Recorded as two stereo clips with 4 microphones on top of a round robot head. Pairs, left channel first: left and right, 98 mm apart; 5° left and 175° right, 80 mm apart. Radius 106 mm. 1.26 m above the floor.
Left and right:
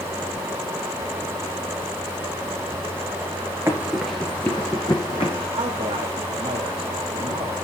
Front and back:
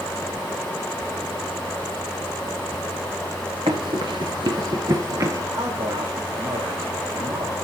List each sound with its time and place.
3.7 s running footsteps: 160° right, 1.5 m; by 5.4 s 140° left, 1.9 m
5.5 s a man speaking: 135° right, 3 m